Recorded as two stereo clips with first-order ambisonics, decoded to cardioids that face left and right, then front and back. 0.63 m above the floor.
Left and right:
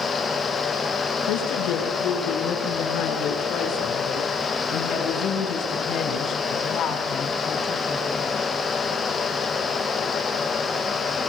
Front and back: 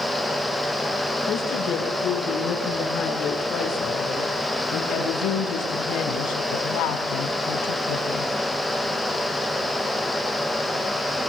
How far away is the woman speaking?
About 8.5 m.